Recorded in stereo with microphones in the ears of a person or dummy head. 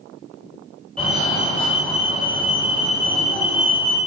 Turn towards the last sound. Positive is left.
turn(degrees=0)  # may be behind; listen again after turning